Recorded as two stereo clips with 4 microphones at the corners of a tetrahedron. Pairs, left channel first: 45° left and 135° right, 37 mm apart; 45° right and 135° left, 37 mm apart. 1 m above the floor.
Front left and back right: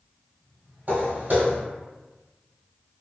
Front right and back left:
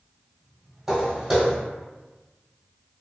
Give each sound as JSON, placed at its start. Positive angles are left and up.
{"t": 0.9, "sound": "footsteps", "azimuth_deg": -150, "distance_m": 1.5}